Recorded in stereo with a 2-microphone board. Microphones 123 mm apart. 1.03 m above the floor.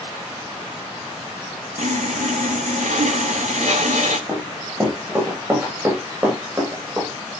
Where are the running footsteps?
25° right (ahead or behind), 9 m; by 7.1 s 30° right (ahead or behind), 11 m.